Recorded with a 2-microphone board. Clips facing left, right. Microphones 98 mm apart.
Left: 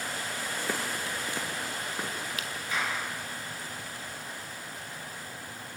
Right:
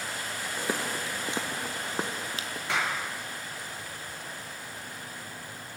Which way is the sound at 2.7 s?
75° right (ahead or behind).